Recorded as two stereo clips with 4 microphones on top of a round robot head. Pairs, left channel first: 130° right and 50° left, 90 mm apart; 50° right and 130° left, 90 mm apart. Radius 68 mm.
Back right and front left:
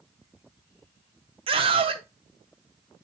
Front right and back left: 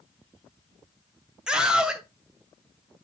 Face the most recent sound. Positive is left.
turn(degrees=50)